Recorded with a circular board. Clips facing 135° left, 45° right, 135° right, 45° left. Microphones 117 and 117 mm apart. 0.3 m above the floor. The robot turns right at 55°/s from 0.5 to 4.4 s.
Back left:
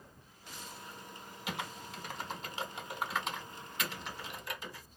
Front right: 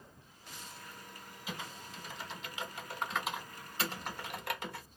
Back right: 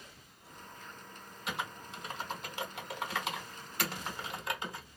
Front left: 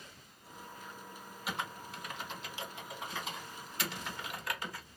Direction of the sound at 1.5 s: 130° left.